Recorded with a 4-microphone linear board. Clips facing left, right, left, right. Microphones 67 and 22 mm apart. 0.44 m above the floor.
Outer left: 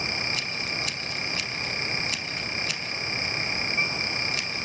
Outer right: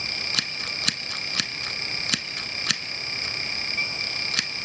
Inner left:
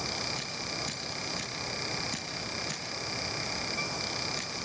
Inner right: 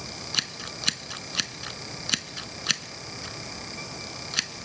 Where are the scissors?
70° right (ahead or behind), 0.8 m.